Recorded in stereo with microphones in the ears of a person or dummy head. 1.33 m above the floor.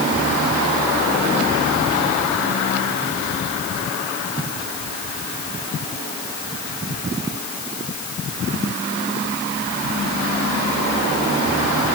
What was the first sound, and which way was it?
Only background noise.